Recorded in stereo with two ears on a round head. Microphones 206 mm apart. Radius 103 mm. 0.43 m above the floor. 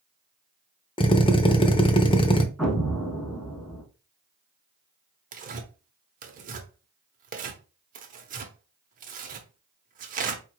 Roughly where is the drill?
Left.